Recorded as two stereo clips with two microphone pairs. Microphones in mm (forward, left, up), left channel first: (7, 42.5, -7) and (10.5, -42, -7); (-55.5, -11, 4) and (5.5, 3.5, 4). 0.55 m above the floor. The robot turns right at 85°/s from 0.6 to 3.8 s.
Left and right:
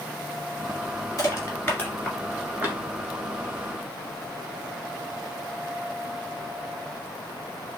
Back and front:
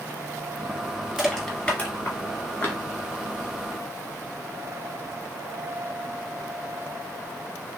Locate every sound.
1.2 s crushing: 95° left, 1.5 m; by 2.8 s 125° right, 1.5 m